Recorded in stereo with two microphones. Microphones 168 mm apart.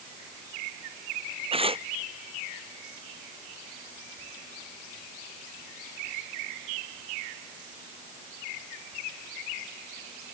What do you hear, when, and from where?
1.5 s tearing paper: 35° right (ahead or behind)